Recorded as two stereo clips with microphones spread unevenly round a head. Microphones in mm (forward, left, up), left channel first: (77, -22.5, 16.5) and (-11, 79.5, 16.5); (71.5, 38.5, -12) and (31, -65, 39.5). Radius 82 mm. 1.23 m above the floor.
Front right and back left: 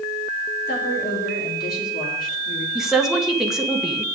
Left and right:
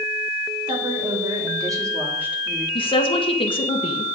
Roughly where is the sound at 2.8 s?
Ahead left.